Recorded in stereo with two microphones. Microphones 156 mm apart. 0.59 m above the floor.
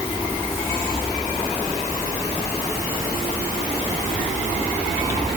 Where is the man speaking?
No man speaking in this recording.